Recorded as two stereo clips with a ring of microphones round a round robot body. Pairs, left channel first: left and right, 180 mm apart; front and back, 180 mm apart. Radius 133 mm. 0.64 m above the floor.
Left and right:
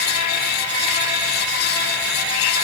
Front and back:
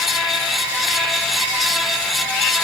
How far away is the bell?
No bell in this recording.